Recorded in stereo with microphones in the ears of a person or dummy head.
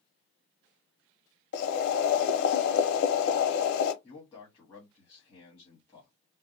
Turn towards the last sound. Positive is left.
turn(degrees=5)  # may be behind; listen again after turning